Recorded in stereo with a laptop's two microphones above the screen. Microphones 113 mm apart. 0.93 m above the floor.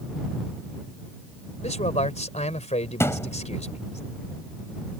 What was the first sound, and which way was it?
A man speaking, 75° left (ahead or behind).